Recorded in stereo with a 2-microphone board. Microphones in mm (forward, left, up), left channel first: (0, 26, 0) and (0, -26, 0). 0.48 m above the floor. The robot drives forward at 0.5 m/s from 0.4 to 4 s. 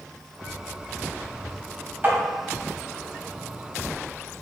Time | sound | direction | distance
2.0 | tapping | 40° right (ahead or behind) | 1.4 m